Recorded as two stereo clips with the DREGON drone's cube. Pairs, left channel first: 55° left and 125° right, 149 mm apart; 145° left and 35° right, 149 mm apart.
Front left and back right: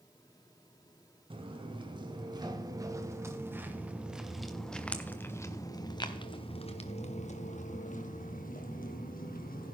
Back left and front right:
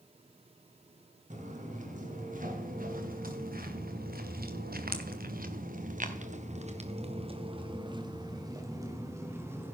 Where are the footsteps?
70° right, 2.5 m; by 9.8 s 40° left, 2.5 m.